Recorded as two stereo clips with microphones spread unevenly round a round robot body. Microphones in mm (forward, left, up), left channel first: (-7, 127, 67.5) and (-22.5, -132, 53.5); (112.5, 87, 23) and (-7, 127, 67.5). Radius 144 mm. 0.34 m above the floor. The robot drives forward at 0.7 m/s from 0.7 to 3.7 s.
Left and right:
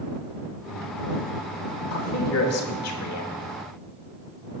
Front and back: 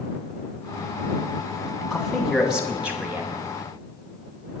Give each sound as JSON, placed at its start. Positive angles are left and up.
{"t": 1.9, "sound": "a man speaking", "azimuth_deg": 55, "distance_m": 3.0}